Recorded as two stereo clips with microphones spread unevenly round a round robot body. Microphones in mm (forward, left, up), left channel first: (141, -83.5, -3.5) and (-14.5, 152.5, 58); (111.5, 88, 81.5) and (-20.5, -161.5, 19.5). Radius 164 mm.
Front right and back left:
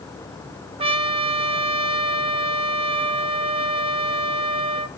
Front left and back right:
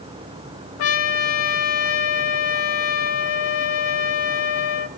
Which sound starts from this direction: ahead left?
A trumpet, at 0.8 s.